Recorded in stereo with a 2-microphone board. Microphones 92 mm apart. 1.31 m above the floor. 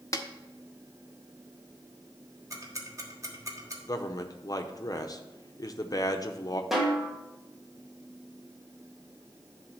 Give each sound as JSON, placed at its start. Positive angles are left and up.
{"t": 0.1, "sound": "a snare drum", "side_deg": 35, "distance_m": 0.7}
{"t": 2.5, "sound": "ticking", "side_deg": -35, "distance_m": 1.4}
{"t": 3.9, "sound": "a man speaking", "side_deg": 40, "distance_m": 0.7}
{"t": 6.7, "sound": "a snare drum", "side_deg": -5, "distance_m": 1.6}